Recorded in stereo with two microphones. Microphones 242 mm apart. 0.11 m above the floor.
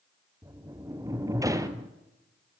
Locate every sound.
0.4 s a sliding door: 15° right (ahead or behind), 1.1 m